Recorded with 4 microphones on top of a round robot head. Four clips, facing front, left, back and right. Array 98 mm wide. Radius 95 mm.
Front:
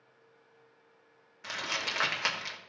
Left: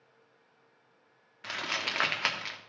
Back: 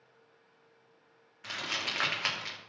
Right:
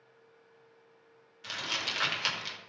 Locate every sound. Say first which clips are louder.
1.4 s crumpling: left 3 dB, front 1 dB; 75° left, 1.6 m